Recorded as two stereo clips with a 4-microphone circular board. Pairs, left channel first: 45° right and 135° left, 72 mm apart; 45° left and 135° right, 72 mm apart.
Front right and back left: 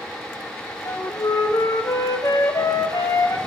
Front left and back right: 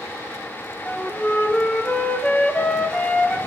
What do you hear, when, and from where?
0.8 s a flute: 30° right, 0.6 m